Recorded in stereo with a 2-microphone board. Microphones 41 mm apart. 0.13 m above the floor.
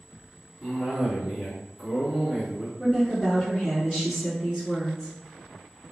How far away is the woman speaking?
About 1.7 m.